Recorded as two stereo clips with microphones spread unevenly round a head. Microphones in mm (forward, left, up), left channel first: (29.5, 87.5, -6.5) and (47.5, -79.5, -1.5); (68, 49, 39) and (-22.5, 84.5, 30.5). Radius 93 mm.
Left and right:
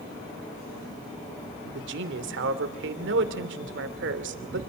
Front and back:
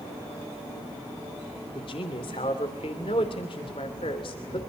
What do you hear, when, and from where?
1.8 s a man speaking: 75° right, 3 m